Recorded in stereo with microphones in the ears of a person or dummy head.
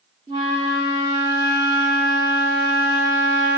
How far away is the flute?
About 0.5 m.